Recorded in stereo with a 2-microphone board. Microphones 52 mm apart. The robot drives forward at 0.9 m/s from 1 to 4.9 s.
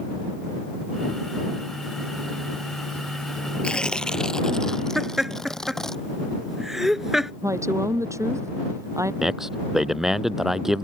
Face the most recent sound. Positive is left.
turn(degrees=-10)  # may be behind; listen again after turning